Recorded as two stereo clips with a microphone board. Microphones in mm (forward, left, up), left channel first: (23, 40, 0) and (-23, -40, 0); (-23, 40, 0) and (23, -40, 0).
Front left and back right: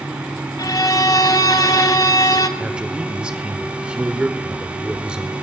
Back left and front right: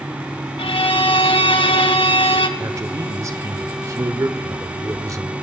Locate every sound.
0.6 s a violin: 105° left, 0.7 m
2.6 s a man speaking: 50° right, 1.0 m